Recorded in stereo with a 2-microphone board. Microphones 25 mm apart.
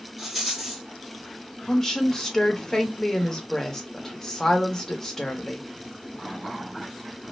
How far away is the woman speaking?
About 0.9 m.